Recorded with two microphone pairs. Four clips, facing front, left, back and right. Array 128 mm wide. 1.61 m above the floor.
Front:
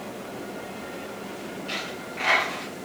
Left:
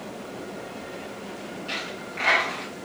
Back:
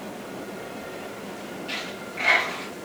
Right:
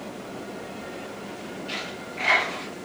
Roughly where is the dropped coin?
Left.